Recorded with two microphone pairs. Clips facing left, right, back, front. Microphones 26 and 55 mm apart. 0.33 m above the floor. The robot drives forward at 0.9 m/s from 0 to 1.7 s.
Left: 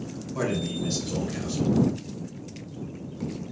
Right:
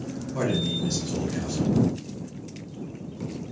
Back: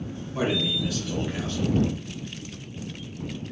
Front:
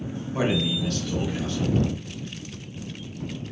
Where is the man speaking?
Straight ahead, 0.9 m; by 1.8 s straight behind, 1.2 m.